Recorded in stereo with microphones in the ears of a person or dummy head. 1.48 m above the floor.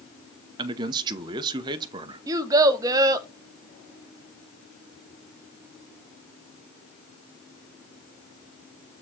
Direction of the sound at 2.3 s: 15° right (ahead or behind).